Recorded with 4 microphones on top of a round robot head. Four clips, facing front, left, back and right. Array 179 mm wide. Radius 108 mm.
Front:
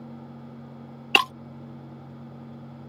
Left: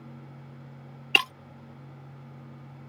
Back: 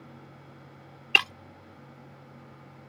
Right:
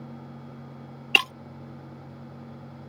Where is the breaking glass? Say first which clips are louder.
Right 1 dB, front 6 dB; 5° right.